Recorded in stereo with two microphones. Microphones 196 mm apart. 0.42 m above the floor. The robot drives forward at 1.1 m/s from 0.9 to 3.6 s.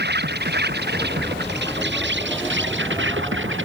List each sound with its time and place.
0.0 s an insect: 60° right (ahead or behind); by 3.6 s 80° right